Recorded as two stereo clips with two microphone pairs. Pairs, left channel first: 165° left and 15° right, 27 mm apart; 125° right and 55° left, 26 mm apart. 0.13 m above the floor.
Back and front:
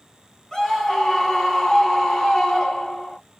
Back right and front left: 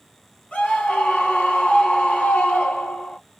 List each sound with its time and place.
0.5 s a scream: 125° right, 3.5 m